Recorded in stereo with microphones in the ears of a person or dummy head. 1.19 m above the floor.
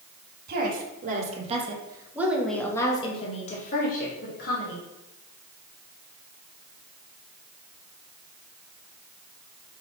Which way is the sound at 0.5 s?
55° right (ahead or behind).